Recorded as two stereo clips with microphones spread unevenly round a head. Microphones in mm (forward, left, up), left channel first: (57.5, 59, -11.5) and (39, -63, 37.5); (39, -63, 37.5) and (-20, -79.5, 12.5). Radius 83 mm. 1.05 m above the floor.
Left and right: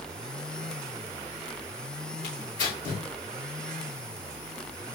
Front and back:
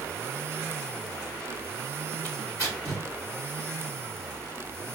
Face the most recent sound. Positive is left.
turn(degrees=105)